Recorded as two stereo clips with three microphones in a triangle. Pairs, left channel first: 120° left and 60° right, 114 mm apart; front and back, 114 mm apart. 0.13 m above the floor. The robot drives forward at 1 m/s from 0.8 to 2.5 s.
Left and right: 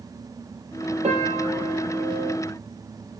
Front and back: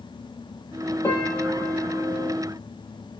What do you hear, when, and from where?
1.0 s a piano: 65° right, 4 m; by 2.3 s 85° right, 3.5 m